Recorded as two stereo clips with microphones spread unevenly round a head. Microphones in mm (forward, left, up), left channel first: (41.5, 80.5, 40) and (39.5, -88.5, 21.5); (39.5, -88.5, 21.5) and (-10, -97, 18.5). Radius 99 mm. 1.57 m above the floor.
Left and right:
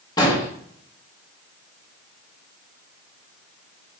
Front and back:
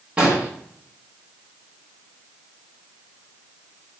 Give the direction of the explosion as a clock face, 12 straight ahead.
8 o'clock.